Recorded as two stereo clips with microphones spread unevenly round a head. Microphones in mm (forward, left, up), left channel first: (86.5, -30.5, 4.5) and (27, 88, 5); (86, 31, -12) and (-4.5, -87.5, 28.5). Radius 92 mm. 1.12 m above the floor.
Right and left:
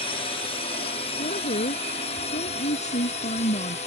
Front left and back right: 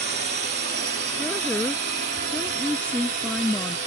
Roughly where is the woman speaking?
Ahead right.